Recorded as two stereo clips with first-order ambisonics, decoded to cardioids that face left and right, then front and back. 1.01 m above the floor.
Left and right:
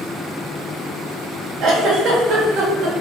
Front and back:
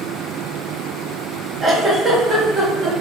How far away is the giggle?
About 1.1 m.